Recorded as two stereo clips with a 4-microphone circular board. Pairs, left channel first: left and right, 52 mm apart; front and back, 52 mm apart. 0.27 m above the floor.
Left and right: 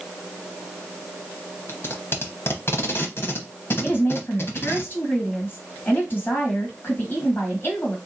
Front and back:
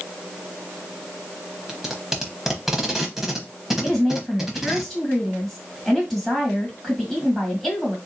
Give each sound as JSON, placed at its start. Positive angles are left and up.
{"t": 1.7, "sound": "tape being pulled", "azimuth_deg": 100, "distance_m": 0.9}
{"t": 3.8, "sound": "a woman speaking", "azimuth_deg": 80, "distance_m": 1.8}